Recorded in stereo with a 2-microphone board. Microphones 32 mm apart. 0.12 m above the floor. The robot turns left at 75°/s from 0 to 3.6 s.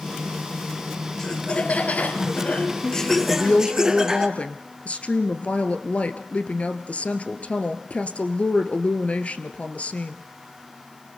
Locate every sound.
1.2 s laughter: 160° left, 2.5 m; by 4.3 s 25° right, 2.5 m
3.3 s a woman speaking: 55° left (ahead or behind), 1.8 m; by 10.2 s 45° left (ahead or behind), 1.8 m